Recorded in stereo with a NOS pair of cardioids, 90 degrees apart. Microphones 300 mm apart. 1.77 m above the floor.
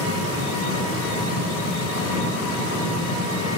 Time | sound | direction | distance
0.0 | an engine running | 65° left | 4.5 m